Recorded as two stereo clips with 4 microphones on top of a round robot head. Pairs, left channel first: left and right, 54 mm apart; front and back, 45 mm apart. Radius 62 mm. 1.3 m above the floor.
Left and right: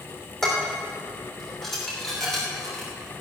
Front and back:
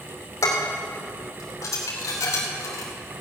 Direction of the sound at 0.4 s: 5° left.